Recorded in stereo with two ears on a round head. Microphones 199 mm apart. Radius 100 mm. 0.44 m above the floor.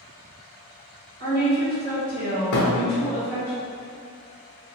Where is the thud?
70° left (ahead or behind), 0.9 m.